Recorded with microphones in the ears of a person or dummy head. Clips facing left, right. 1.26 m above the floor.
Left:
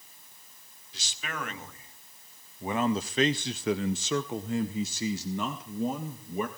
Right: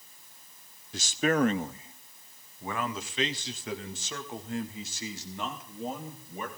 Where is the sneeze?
No sneeze in this recording.